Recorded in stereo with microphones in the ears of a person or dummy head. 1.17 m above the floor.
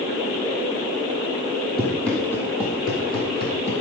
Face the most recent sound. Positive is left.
turn(degrees=30)  # may be behind; listen again after turning